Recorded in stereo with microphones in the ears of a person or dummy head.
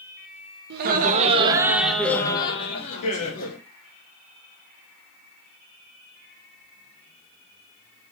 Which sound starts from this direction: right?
Laughter, at 0.7 s.